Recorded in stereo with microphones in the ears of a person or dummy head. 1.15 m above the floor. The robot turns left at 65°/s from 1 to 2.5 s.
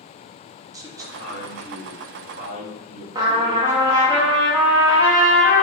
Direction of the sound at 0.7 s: 25° right.